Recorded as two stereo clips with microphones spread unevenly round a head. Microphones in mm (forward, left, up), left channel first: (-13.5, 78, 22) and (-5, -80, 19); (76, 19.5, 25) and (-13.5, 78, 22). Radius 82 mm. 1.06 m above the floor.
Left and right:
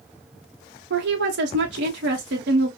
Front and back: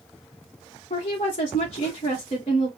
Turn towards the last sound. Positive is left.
turn(degrees=-85)